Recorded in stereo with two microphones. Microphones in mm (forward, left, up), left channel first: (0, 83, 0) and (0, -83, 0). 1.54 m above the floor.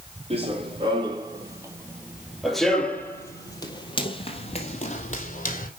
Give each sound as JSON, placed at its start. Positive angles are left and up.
{"t": 0.3, "sound": "running footsteps", "side_deg": -35, "distance_m": 2.5}